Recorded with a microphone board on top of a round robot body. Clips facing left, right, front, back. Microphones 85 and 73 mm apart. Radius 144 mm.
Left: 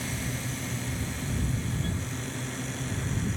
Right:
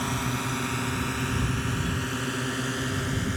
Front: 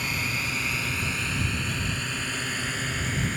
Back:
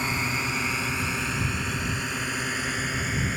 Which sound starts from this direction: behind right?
A drone, at 0.0 s.